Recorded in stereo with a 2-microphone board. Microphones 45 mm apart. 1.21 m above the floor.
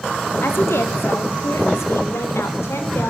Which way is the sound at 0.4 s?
65° left (ahead or behind).